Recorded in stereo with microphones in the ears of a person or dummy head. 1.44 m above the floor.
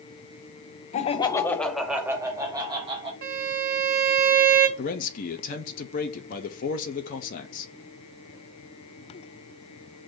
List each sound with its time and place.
0.9 s laughter: 40° left (ahead or behind), 0.5 m; by 3.1 s 35° right (ahead or behind), 1.2 m
3.2 s a violin: 50° right (ahead or behind), 0.8 m
4.8 s a man speaking: 50° left (ahead or behind), 0.5 m